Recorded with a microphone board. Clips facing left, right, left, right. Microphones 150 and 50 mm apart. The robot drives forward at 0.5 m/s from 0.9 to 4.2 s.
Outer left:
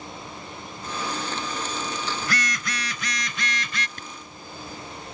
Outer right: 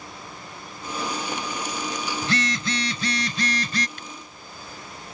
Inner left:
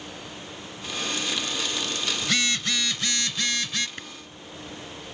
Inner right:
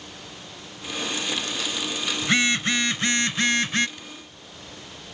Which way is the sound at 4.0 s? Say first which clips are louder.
Even, inner left 3 dB; 45° left (ahead or behind).